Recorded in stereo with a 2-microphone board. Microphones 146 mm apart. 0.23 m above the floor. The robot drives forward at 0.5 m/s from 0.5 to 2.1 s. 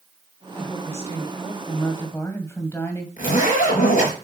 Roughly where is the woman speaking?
Centre.